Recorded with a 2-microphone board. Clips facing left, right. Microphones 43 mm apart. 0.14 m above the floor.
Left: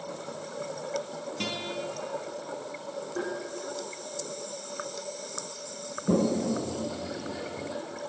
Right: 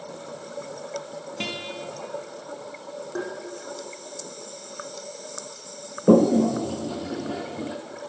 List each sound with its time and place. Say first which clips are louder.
1.4 s a guitar: right 2 dB; 25° right (ahead or behind), 1.7 m
3.1 s tapping: right 2 dB; 70° right (ahead or behind), 4.5 m
6.1 s a toilet flushing: right 9 dB; 75° right (ahead or behind), 1.0 m